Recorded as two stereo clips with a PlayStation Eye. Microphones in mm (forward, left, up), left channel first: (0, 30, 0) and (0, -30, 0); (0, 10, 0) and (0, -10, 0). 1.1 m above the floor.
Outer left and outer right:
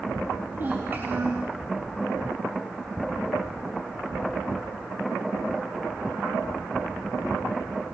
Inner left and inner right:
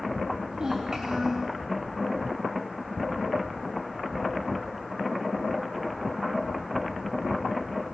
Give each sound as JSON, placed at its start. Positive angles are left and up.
{"t": 0.5, "sound": "a child speaking", "side_deg": -35, "distance_m": 4.0}